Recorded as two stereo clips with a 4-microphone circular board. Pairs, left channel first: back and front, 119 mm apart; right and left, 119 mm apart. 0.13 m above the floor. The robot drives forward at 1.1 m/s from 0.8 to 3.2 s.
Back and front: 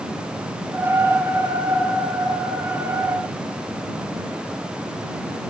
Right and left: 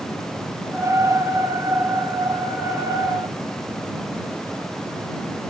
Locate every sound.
Only background noise.